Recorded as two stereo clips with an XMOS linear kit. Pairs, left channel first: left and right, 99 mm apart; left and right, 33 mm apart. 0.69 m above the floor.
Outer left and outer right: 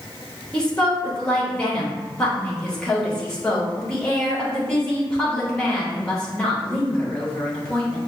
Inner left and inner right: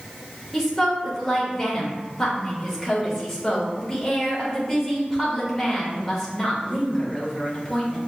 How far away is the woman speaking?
About 1.3 m.